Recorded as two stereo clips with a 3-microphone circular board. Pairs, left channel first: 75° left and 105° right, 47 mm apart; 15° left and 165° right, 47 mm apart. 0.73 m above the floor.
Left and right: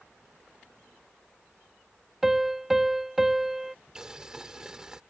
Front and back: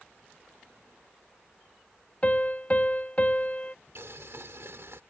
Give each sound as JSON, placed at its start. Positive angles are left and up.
{"t": 2.2, "sound": "a piano", "azimuth_deg": -20}
{"t": 4.0, "sound": "boiling", "azimuth_deg": 180}